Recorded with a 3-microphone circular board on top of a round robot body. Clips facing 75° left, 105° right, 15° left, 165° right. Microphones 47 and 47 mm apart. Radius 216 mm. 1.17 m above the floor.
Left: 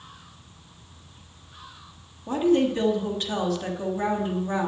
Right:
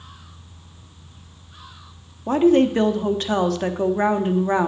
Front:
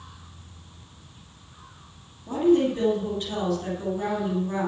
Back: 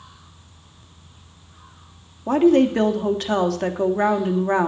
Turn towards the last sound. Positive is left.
turn(degrees=-145)